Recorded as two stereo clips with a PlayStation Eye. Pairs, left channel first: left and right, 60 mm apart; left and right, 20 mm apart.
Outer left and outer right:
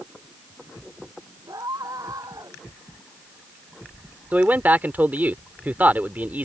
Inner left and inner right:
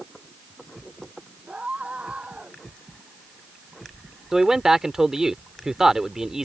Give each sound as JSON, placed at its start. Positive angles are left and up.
{"t": 1.5, "sound": "a scream", "side_deg": -85}
{"t": 4.3, "sound": "a man speaking", "side_deg": -30}